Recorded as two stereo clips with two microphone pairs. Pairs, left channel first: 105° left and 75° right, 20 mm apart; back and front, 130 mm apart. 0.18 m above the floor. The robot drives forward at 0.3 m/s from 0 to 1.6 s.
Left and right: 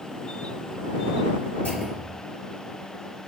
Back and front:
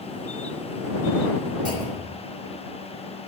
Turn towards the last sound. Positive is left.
turn(degrees=125)